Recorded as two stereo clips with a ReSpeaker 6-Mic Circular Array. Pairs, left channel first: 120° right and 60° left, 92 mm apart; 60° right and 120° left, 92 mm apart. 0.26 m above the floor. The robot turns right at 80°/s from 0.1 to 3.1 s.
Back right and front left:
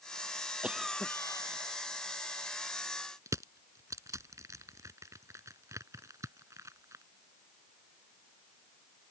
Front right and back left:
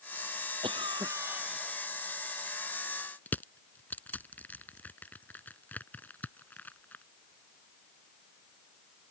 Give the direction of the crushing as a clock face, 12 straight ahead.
12 o'clock.